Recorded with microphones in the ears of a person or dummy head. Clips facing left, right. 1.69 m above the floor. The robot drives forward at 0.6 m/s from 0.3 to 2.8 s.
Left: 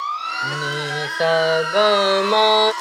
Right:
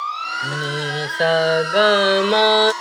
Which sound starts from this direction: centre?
Singing, at 0.4 s.